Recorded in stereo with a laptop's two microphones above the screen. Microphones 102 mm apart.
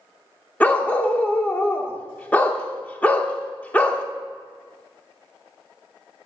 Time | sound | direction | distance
0.6 | a dog barking | 15° left (ahead or behind) | 0.7 m